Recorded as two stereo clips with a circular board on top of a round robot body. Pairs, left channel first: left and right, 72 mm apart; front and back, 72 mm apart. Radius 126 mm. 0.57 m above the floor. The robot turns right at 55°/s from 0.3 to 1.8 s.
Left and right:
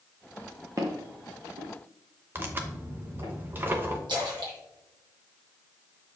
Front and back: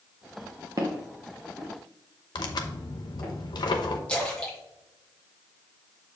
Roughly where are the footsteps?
Behind right.